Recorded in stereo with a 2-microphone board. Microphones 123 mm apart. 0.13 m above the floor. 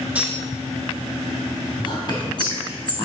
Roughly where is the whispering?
Left.